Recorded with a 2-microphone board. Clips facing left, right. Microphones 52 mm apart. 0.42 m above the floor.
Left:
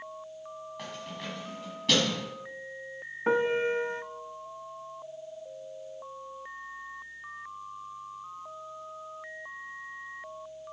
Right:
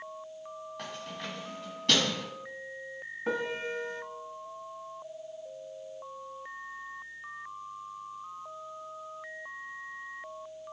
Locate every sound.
0.8 s keys jangling: centre (ahead or behind), 2 m
3.3 s a piano: 40° left (ahead or behind), 0.6 m